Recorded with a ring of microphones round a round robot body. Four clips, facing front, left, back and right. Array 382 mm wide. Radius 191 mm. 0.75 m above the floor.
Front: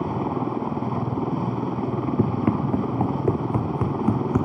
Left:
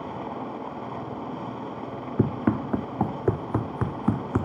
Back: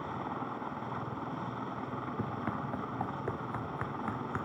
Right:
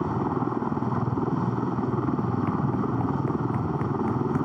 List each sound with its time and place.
0.0 s a helicopter: 45° right
2.2 s running footsteps: 45° left; by 4.5 s 30° left